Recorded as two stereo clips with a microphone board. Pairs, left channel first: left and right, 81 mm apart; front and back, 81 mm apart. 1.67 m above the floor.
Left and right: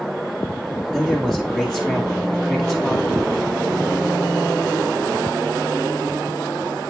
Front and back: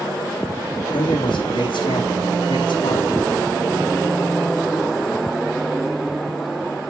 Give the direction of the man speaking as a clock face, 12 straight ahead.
12 o'clock.